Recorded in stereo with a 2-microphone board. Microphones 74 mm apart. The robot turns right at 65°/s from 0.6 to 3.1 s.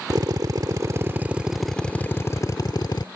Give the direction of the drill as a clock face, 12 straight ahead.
2 o'clock.